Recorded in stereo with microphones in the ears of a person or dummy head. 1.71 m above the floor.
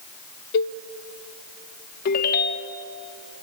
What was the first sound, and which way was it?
A cowbell, 65° left (ahead or behind).